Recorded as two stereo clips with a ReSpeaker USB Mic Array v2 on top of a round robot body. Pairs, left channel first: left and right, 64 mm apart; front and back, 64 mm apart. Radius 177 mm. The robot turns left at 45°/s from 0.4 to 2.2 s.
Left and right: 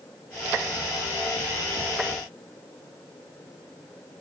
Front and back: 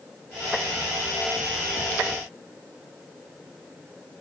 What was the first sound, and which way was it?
Only background noise.